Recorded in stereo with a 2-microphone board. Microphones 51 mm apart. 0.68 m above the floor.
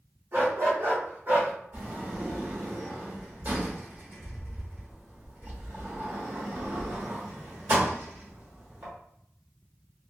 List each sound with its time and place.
0.3 s a dog barking: 65° right (ahead or behind), 1.4 m; by 1.5 s 35° right (ahead or behind), 1.3 m
1.7 s a sliding door: 40° right (ahead or behind), 1.4 m